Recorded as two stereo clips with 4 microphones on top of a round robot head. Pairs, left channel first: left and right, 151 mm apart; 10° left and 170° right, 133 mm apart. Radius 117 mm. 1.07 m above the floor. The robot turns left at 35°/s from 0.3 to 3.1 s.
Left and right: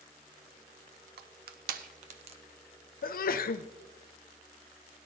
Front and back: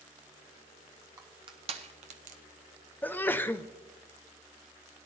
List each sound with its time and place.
1.2 s crushing: 100° right, 0.6 m; by 2.4 s 145° right, 0.6 m
3.0 s a sneeze: 85° left, 0.6 m